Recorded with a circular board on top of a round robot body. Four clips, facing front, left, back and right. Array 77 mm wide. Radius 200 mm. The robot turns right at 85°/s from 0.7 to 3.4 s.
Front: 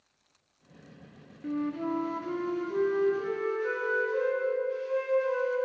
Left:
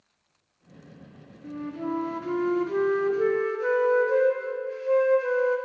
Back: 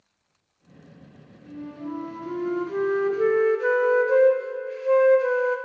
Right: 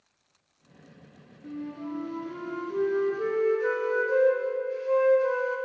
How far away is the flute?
About 0.5 m.